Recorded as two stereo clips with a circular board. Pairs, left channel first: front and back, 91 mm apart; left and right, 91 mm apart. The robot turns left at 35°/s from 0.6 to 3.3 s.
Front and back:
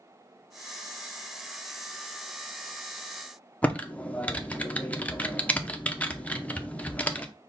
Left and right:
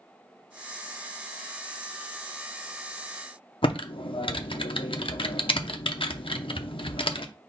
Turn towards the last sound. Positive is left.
turn(degrees=75)